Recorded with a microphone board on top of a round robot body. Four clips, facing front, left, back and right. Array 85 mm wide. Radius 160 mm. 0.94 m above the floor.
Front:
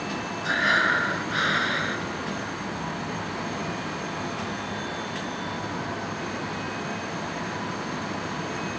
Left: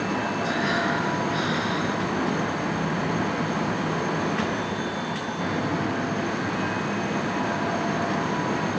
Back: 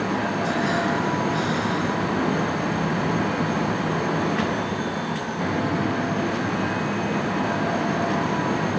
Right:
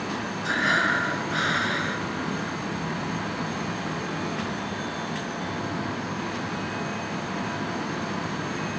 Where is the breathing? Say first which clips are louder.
Right 4 dB, front 4 dB; 40° right.